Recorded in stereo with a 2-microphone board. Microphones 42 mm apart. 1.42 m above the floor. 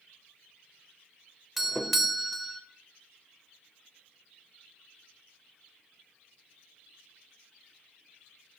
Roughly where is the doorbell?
Centre.